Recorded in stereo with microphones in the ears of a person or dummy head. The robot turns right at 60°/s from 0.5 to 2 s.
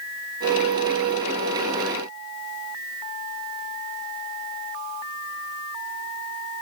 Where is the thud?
No thud in this recording.